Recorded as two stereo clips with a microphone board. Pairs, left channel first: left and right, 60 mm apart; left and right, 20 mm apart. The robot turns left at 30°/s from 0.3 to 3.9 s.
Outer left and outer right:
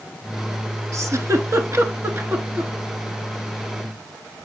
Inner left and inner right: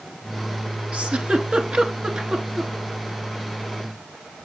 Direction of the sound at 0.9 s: 65° right (ahead or behind).